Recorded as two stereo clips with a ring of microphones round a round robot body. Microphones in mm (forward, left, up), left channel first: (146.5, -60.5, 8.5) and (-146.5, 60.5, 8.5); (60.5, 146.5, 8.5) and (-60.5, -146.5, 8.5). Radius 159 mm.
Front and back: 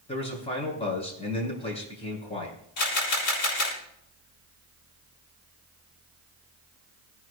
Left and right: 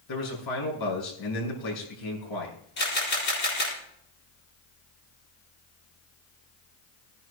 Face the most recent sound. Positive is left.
turn(degrees=10)